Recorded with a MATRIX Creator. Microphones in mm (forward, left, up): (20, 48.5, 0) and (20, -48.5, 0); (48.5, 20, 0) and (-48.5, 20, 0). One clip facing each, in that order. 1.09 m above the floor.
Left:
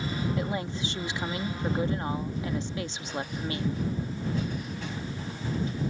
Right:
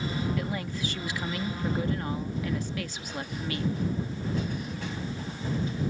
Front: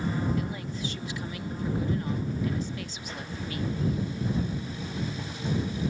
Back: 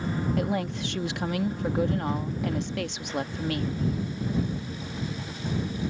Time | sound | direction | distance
0.4 | a woman speaking | 155° left | ?